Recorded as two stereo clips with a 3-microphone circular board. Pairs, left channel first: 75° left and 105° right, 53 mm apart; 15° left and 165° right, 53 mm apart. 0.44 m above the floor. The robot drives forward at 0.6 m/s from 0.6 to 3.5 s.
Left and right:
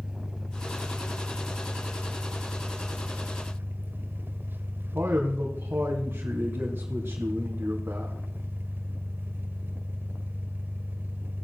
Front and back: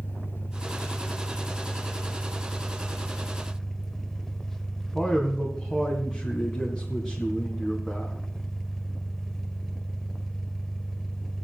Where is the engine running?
30° right, 3 m; by 11.4 s 65° right, 1.8 m.